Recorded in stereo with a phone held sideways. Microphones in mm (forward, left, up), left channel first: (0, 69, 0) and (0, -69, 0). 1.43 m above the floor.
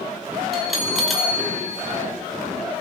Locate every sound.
0.5 s a bell: centre (ahead or behind), 2.5 m